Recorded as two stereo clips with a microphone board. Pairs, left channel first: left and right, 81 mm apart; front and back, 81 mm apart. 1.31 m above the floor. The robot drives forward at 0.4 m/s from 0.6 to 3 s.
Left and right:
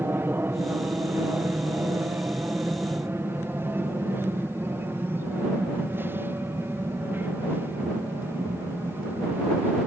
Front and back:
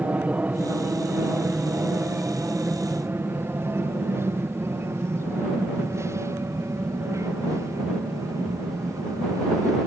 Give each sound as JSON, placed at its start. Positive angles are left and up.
{"t": 0.0, "sound": "an aircraft", "azimuth_deg": -125}